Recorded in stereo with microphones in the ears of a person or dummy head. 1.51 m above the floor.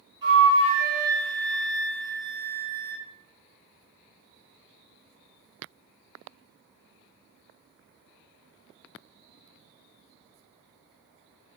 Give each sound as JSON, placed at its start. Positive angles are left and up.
{"t": 0.2, "sound": "a flute", "side_deg": -20, "distance_m": 1.8}